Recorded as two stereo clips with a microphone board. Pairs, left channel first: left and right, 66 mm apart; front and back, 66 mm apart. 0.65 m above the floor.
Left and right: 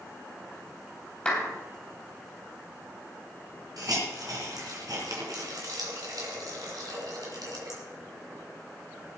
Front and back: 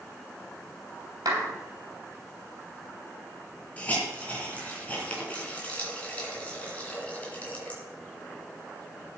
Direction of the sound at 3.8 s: 65° right.